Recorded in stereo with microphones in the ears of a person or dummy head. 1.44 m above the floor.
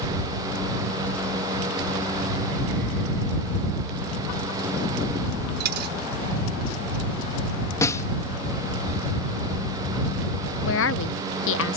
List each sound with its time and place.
5.6 s a dropped coin: 50° right (ahead or behind)
7.8 s a snare drum: 20° left (ahead or behind)
10.7 s a woman speaking: 75° left (ahead or behind)